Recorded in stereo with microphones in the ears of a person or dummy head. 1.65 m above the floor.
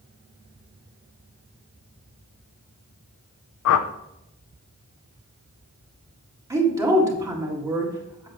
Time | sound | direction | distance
3.6 | a whoosh | 70° left (ahead or behind) | 0.5 m
6.5 | a woman speaking | 15° right (ahead or behind) | 1.8 m